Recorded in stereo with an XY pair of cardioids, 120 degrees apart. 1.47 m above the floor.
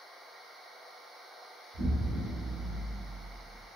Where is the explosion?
45° right, 1.7 m.